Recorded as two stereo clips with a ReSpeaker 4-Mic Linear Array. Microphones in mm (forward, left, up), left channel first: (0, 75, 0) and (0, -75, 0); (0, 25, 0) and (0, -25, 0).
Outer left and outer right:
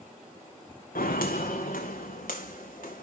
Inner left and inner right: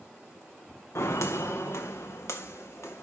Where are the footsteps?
80° left, 1.0 m; by 3.0 s 85° left, 2 m.